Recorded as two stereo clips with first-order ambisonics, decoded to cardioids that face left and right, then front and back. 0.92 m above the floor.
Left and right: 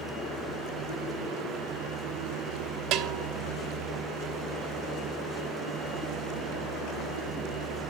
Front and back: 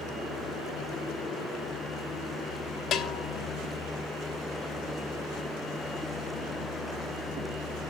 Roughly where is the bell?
Ahead right.